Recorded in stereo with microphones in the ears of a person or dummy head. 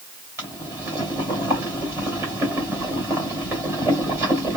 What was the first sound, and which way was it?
Boiling, 10° right (ahead or behind).